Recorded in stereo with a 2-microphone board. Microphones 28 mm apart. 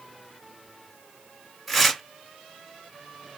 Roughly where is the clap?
I don't hear a clap.